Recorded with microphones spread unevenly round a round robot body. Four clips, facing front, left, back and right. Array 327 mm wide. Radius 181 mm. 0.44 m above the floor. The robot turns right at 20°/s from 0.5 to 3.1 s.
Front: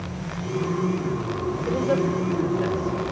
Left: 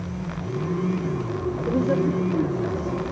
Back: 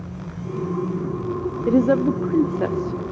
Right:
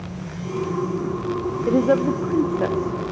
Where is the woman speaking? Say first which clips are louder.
Right 4 dB, back 6 dB; 175° right, 1.1 m; by 3.1 s 150° right, 1.1 m.